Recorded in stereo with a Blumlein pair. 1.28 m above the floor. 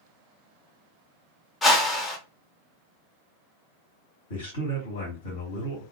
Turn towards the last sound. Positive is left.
turn(degrees=65)